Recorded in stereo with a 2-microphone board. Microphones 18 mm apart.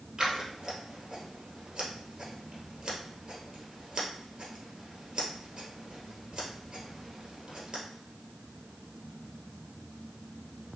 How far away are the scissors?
About 2 m.